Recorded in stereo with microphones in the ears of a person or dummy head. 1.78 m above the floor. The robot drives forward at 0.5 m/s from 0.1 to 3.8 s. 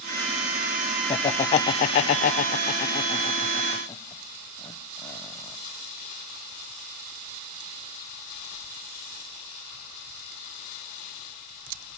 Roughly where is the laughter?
Left.